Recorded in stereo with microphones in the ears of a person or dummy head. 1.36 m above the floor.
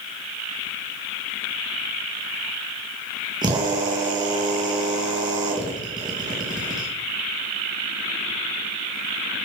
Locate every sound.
3.4 s a drill: 20° right (ahead or behind), 2.5 m